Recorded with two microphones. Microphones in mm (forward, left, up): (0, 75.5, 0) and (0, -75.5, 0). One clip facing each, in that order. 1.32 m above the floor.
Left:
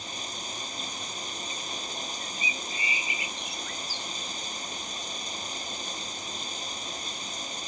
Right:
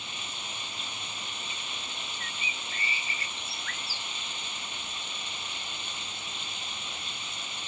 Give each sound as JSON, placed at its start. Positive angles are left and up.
{"t": 0.0, "sound": "running water", "side_deg": 35}
{"t": 2.2, "sound": "a bird", "side_deg": 15}